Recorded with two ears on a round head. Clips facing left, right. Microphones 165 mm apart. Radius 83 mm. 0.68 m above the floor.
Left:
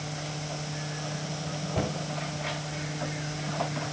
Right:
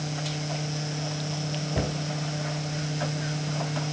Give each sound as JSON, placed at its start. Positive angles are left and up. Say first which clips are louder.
{"t": 1.8, "sound": "a cupboard door", "louder": "even", "side_deg": -15, "distance_m": 2.5}